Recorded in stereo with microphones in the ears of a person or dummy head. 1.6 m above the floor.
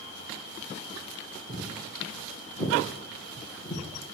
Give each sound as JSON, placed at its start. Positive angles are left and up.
{"t": 1.5, "sound": "footsteps", "side_deg": -5, "distance_m": 3.5}